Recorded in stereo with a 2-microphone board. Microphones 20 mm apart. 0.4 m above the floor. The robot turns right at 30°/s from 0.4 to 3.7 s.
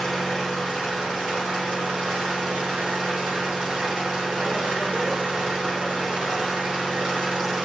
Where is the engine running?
160° right, 5.5 m; by 7.7 s 60° right, 5.5 m.